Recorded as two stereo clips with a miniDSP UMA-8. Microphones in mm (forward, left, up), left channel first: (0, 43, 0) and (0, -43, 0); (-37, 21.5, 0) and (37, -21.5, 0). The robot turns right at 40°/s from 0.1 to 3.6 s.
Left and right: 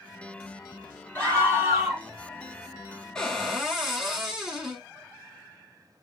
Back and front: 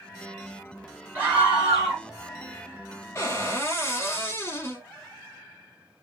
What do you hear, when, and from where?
1.1 s a scream: 30° left, 1.9 m; by 2.0 s 65° left, 1.9 m
3.1 s a cupboard door: 170° left, 1.0 m; by 4.9 s 175° right, 1.0 m